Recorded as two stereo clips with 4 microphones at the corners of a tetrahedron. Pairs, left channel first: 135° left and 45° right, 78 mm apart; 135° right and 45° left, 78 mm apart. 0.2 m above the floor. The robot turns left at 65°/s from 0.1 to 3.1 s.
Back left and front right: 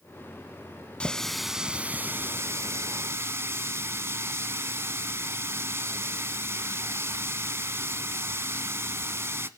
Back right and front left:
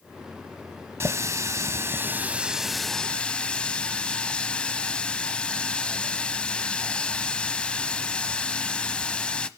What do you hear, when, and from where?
1.0 s a running tap: 70° left, 0.8 m; by 9.5 s 70° right, 0.8 m